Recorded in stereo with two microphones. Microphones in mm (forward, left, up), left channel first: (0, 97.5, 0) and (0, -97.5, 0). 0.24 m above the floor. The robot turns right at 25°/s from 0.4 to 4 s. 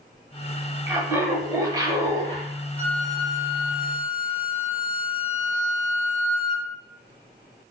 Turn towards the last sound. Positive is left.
turn(degrees=40)